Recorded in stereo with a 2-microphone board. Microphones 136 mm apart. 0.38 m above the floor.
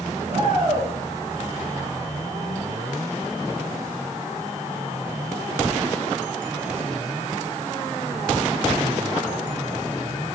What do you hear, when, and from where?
0.3 s a shout: 55° right (ahead or behind), 4 m